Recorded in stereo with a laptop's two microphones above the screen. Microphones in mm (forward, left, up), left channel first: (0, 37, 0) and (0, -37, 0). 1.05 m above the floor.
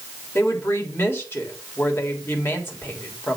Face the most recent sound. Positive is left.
turn(degrees=35)  # may be behind; listen again after turning